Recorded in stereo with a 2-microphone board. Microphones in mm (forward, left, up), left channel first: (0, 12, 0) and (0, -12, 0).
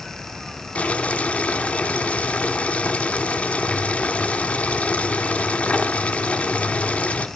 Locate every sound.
0.8 s boiling: 70° left (ahead or behind), 1.0 m